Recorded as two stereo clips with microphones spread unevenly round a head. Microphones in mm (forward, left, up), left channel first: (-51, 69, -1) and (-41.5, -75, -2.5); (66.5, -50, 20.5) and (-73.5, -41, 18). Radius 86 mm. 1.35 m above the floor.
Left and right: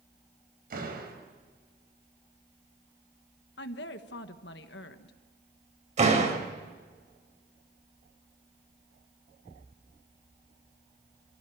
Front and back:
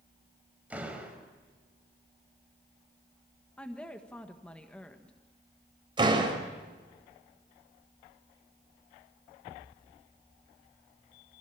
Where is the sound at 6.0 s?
125° right, 4.5 m.